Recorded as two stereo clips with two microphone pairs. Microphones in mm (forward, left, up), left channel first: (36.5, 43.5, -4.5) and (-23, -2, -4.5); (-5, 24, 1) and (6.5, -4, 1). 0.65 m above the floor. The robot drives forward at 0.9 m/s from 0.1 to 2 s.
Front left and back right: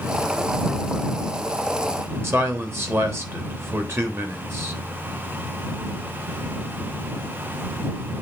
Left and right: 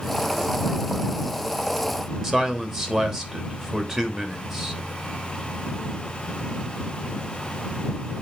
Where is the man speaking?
145° right, 1.3 m.